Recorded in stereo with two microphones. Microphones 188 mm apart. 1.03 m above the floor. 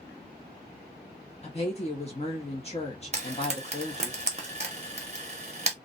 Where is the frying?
40° right (ahead or behind), 0.8 m.